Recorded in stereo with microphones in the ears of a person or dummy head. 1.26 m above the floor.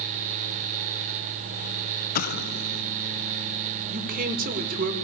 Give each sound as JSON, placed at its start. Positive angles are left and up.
{"t": 2.1, "sound": "an explosion", "side_deg": 55, "distance_m": 0.8}
{"t": 3.9, "sound": "a man speaking", "side_deg": -50, "distance_m": 5.0}